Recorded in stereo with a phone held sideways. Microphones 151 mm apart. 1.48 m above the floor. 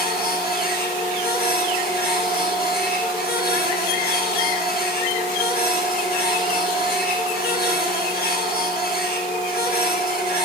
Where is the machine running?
75° left (ahead or behind), 7 m.